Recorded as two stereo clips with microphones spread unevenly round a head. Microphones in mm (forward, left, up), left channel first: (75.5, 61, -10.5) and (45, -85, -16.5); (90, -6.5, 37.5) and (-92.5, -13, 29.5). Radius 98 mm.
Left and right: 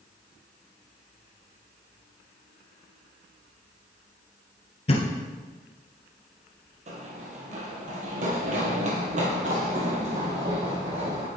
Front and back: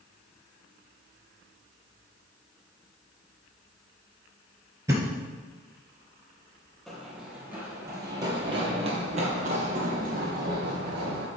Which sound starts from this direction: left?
A thud, at 4.9 s.